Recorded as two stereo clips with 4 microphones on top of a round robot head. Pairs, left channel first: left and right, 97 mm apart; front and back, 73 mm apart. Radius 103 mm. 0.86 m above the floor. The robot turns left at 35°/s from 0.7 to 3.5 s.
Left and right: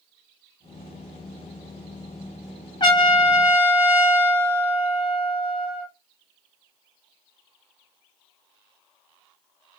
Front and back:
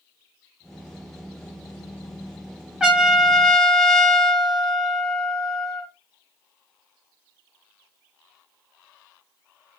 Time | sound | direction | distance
2.8 | a trumpet | 105° left | 0.5 m